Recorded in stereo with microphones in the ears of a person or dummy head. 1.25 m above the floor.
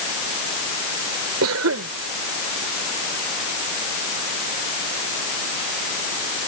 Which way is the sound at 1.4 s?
85° right.